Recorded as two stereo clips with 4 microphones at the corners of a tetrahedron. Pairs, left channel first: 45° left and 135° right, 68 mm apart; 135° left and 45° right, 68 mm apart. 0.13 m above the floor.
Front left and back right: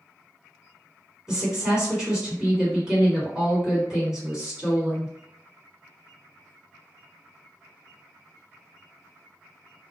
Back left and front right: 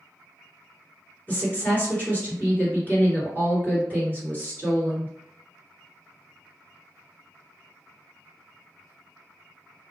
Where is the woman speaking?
160° left, 1.7 m.